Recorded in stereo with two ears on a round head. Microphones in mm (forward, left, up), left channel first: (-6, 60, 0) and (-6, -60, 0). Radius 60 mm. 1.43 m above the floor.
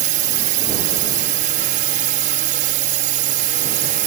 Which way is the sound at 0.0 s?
65° right (ahead or behind).